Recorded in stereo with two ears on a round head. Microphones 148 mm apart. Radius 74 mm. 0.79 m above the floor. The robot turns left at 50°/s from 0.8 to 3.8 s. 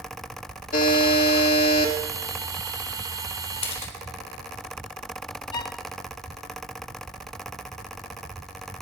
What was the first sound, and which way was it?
A buzzer, 120° left.